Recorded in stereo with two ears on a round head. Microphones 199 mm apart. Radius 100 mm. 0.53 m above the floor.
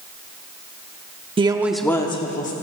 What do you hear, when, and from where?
1.4 s a woman speaking: 25° right (ahead or behind), 0.9 m; by 2.5 s 35° left (ahead or behind), 1.2 m